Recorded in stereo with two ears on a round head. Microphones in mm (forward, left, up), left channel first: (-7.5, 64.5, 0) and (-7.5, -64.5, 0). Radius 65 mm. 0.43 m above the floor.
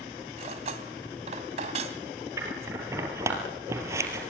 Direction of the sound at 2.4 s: 20° right (ahead or behind).